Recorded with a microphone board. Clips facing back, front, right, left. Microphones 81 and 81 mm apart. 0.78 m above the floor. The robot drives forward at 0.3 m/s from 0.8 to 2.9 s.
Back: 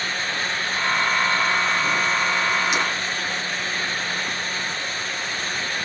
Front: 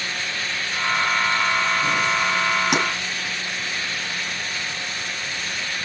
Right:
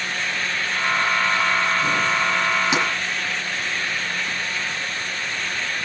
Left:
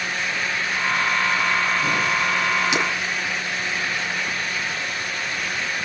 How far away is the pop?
About 4 m.